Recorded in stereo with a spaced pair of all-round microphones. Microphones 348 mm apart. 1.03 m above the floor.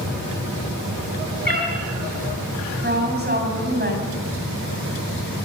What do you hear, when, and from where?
1.4 s a cat meowing: 75° left (ahead or behind), 5 m
2.8 s a woman speaking: 30° right (ahead or behind), 7 m